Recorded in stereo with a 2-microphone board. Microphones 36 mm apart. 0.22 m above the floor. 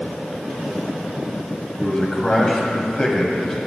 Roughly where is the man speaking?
Centre.